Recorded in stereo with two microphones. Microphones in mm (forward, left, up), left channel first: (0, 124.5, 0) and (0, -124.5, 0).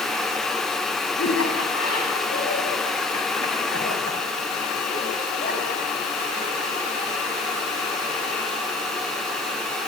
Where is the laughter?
70° left (ahead or behind), 6 m; by 6.5 s 30° left (ahead or behind), 6 m.